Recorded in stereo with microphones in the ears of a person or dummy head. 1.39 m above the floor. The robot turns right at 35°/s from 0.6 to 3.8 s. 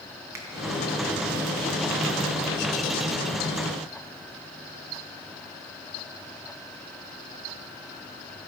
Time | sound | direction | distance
0.3 | a finger snap | 15° right (ahead or behind) | 0.6 m